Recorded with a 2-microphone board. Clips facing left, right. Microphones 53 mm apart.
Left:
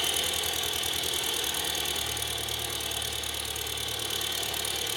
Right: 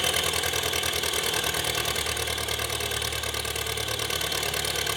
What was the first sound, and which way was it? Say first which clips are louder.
An engine running: right 5 dB; 85° right.